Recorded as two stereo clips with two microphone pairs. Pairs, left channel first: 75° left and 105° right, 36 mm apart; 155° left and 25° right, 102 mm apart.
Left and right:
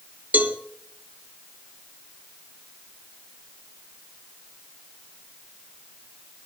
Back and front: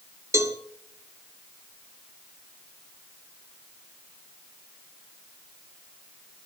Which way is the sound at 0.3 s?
85° right.